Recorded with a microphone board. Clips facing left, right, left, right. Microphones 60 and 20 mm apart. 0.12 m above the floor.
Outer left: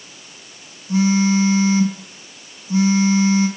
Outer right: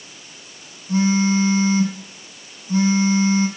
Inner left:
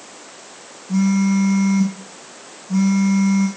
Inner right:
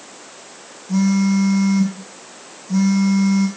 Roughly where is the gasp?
No gasp in this recording.